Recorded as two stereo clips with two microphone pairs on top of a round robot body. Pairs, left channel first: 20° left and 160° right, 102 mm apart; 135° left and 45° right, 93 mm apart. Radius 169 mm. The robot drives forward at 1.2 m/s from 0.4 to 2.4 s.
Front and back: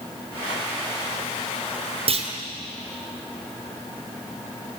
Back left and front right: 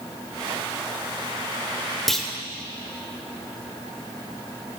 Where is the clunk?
135° right, 2.5 m; by 2.3 s 140° right, 3 m.